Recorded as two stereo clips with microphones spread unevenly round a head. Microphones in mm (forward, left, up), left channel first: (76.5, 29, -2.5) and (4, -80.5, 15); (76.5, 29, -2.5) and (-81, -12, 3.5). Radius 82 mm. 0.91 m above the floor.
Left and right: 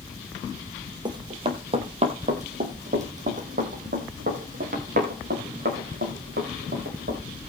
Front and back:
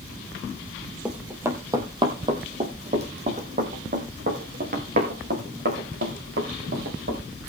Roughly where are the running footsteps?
Right.